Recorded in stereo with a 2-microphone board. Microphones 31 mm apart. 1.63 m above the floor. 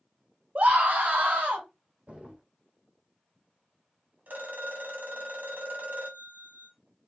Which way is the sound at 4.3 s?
65° right (ahead or behind).